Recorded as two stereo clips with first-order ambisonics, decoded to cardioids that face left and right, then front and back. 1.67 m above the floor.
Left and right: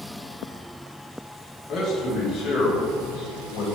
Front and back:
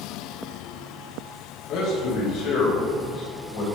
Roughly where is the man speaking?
Ahead left.